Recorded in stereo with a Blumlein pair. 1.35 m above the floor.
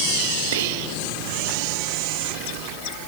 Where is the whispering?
60° right, 1.7 m.